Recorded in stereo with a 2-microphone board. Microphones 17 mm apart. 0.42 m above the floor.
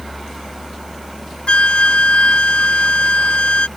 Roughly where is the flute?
Left.